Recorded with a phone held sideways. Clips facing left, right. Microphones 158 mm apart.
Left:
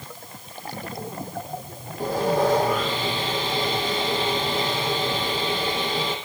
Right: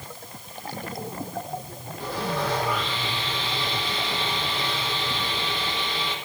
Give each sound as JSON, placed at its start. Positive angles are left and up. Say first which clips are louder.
{"t": 2.0, "sound": "sawing", "louder": "left 7 dB", "side_deg": 45, "distance_m": 5.0}